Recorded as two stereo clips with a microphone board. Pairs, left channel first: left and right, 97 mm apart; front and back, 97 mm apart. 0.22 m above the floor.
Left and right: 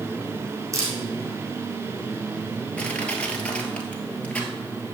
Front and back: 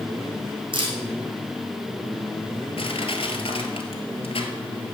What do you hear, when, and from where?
0.7 s a camera shutter: 150° right, 3 m
2.8 s crushing: 10° left, 1.5 m